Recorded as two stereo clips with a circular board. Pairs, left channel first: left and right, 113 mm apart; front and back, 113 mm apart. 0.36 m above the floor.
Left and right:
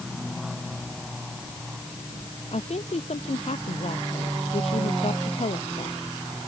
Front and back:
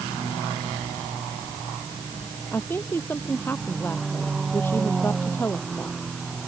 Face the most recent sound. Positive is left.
turn(degrees=70)